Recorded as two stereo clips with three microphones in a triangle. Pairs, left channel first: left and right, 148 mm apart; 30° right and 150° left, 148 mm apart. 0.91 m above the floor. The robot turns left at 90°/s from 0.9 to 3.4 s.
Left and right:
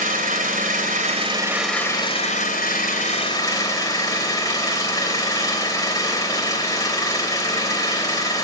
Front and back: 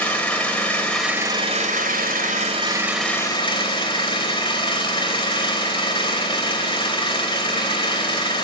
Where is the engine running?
110° right, 3 m; by 8.4 s 25° left, 3 m.